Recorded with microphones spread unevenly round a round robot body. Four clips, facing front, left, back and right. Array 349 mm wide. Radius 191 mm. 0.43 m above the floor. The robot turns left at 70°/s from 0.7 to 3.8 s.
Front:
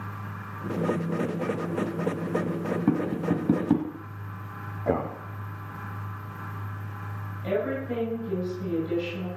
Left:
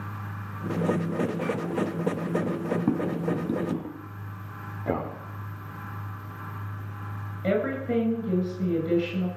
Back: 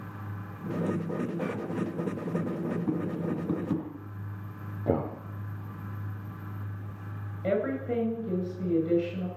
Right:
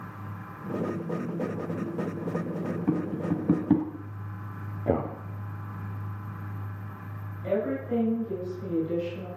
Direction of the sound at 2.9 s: 25° left.